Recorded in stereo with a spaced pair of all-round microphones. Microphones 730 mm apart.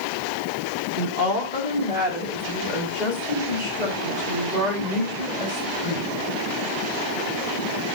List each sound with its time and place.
1.0 s a woman speaking: 75° left (ahead or behind), 3.5 m; by 6.2 s 70° left (ahead or behind), 7 m